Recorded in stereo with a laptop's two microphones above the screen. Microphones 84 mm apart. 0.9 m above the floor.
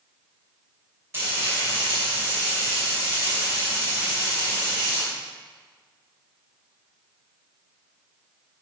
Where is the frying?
25° right (ahead or behind), 2.5 m.